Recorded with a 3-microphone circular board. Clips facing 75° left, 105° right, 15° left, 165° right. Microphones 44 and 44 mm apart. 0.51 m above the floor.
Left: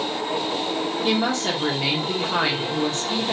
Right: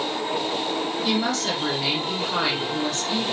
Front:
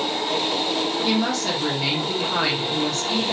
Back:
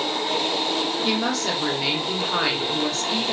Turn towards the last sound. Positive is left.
turn(degrees=110)